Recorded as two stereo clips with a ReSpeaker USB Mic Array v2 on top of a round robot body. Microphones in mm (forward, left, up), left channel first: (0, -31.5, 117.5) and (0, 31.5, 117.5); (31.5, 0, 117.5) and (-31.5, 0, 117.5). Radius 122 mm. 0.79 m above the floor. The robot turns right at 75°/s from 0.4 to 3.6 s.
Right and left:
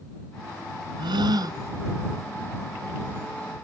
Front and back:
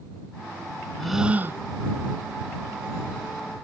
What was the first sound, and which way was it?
A gasp, 80° left.